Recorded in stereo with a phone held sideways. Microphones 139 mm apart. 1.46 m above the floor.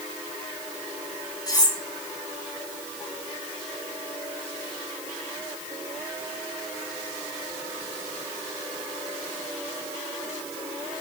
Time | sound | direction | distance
1.5 | cutlery clinking | 25° left (ahead or behind) | 1.0 m